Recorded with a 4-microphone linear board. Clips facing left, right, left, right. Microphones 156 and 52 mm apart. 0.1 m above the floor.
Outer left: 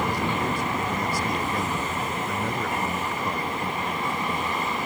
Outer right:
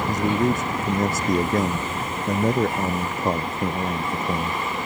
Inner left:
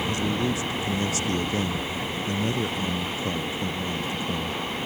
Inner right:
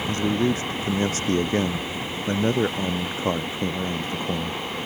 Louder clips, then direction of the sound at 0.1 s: Outer right 5 dB, inner right 7 dB; 45° right (ahead or behind).